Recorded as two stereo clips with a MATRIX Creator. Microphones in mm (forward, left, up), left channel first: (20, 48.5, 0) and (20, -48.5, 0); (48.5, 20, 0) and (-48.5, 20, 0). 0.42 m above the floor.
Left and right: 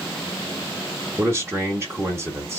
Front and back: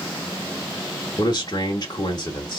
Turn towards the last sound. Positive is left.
turn(degrees=-35)